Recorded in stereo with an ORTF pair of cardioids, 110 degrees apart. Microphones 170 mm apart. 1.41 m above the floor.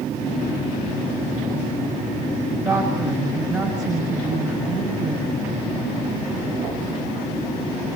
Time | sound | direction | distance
2.6 | a woman speaking | 5° right | 7 m